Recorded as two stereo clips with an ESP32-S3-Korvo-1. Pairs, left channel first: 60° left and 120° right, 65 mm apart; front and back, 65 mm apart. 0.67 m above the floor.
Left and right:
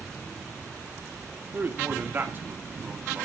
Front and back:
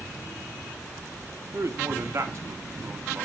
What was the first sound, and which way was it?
A man speaking, 165° right.